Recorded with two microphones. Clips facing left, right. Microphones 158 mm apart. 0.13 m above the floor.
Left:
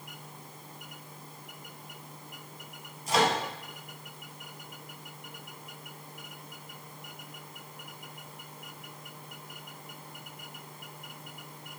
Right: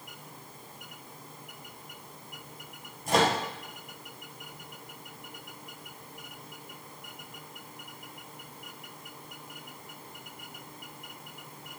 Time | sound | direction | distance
3.1 | a microwave | 55° right (ahead or behind) | 2 m